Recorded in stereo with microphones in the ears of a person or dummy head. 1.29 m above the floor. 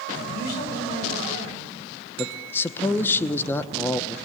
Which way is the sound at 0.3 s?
50° left (ahead or behind).